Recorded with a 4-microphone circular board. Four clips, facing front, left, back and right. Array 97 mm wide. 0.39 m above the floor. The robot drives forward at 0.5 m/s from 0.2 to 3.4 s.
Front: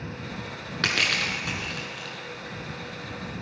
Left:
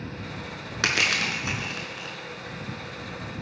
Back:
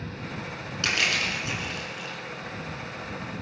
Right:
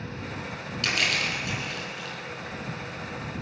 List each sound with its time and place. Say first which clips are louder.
0.8 s crushing: left 3 dB, front 1 dB; 60° left, 3 m; by 2.1 s 70° left, 3 m